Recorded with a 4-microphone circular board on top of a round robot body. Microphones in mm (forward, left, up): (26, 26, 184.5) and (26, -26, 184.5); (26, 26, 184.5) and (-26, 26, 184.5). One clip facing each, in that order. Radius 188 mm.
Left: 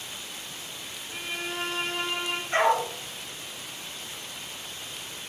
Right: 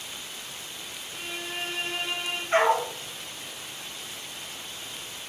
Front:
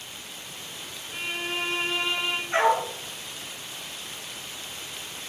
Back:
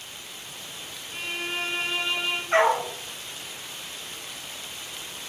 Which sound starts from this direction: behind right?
A dog barking, at 2.5 s.